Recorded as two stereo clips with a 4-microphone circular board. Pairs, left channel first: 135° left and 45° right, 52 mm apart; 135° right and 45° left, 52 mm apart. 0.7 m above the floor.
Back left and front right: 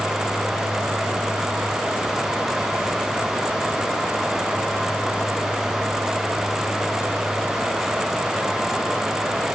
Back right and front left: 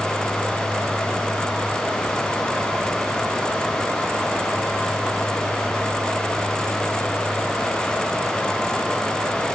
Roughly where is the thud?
I don't hear a thud.